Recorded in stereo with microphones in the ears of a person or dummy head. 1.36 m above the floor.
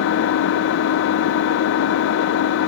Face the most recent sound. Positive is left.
turn(degrees=70)  # may be behind; listen again after turning